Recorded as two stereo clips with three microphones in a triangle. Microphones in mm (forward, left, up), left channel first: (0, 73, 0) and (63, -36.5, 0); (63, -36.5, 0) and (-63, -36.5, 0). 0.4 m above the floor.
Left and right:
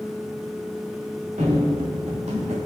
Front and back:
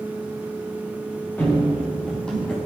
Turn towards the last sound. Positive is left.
turn(degrees=-85)